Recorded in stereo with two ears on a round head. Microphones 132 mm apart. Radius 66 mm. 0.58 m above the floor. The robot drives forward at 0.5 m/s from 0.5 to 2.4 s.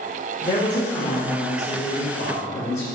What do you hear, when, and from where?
0.4 s a woman speaking: 30° left (ahead or behind), 2.5 m; by 2.8 s 20° left (ahead or behind), 3 m